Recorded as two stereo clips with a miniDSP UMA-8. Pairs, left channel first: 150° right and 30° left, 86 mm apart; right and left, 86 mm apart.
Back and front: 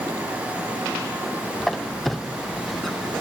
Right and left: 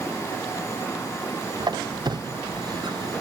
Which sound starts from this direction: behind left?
A squeak, at 1.6 s.